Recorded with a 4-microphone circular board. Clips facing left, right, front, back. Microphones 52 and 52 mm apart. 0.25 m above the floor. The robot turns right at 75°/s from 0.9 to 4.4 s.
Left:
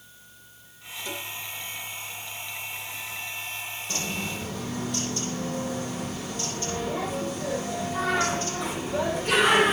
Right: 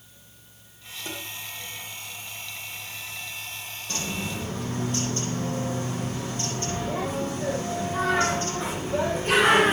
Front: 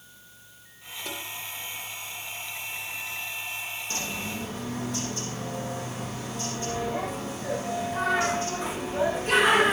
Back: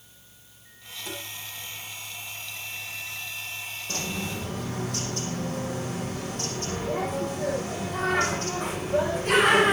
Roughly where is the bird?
Behind.